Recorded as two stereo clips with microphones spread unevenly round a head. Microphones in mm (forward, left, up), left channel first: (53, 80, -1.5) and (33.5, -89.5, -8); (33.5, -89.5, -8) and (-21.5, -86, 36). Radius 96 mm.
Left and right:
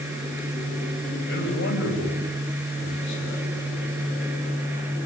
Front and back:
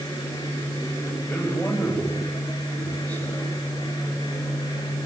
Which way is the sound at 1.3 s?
80° left.